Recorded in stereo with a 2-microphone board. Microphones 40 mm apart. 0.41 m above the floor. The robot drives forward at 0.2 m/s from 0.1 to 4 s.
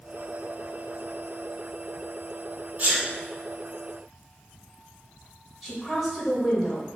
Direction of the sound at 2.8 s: 40° right (ahead or behind).